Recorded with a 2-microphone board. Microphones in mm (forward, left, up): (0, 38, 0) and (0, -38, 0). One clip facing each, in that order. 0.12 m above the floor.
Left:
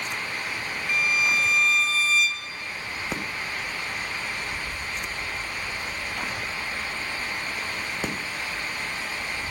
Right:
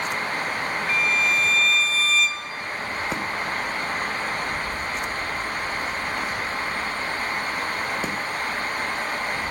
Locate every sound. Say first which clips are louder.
0.9 s a violin: even; 5° left (ahead or behind), 1.8 m